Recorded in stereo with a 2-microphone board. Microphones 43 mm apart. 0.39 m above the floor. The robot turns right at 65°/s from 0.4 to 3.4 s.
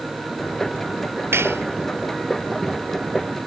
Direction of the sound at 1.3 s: 75° right (ahead or behind).